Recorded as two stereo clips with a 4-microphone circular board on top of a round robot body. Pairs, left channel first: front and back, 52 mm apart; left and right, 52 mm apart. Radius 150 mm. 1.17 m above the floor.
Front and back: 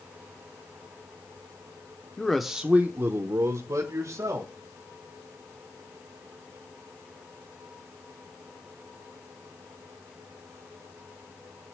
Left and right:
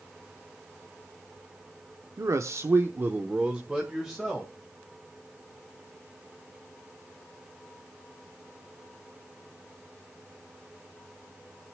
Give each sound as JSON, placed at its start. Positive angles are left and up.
{"t": 2.2, "sound": "a man speaking", "azimuth_deg": -75, "distance_m": 1.1}